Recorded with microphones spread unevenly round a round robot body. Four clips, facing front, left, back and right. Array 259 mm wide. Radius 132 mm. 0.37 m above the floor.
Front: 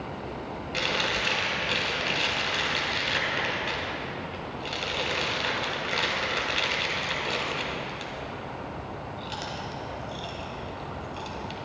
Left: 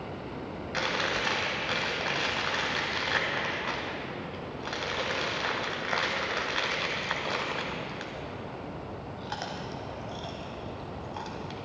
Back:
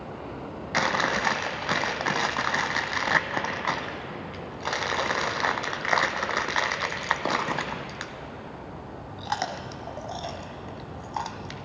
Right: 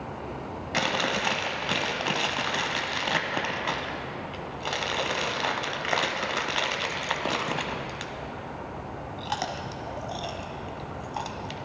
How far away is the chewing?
About 0.6 m.